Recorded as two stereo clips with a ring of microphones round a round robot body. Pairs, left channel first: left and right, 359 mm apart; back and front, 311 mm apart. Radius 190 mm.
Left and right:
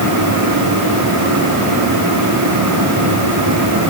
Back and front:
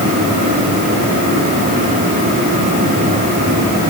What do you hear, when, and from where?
Only background noise.